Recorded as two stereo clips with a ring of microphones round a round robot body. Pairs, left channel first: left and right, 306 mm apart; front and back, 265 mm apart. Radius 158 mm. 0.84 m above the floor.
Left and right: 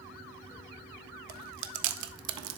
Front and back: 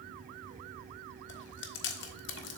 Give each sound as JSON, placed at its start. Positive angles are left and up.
{"t": 1.3, "sound": "chewing", "azimuth_deg": -55, "distance_m": 0.5}